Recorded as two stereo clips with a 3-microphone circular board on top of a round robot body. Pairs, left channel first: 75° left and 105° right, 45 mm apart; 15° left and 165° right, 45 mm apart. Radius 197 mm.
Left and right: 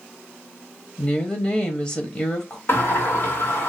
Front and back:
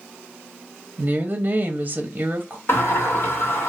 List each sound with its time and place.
1.0 s a woman speaking: 135° left, 0.7 m
2.7 s a sliding door: 40° left, 1.6 m